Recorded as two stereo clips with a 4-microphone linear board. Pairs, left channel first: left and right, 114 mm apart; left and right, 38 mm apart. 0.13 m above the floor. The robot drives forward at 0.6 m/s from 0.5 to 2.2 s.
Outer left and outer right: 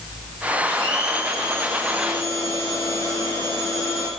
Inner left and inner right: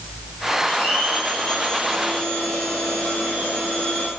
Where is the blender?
40° left (ahead or behind), 3.5 m; by 4.1 s 30° left (ahead or behind), 4 m.